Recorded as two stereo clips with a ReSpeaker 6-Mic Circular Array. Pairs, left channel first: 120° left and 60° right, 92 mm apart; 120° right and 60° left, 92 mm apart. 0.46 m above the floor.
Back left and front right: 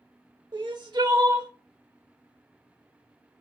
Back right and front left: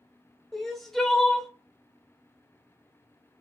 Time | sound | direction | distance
0.5 | crying | 35° right | 0.8 m